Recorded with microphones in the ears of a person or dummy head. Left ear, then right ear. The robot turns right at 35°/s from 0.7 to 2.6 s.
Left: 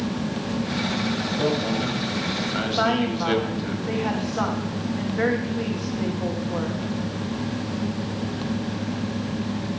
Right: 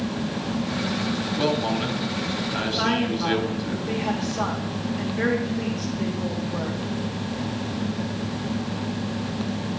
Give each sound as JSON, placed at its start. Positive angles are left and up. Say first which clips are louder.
{"t": 1.4, "sound": "a man speaking", "louder": "right 1 dB", "azimuth_deg": -40, "distance_m": 1.7}
{"t": 2.8, "sound": "a woman speaking", "louder": "left 3 dB", "side_deg": 25, "distance_m": 1.9}